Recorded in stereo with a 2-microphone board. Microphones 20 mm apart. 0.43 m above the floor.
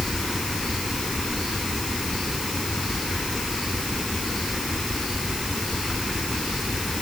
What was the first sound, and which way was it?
Only background noise.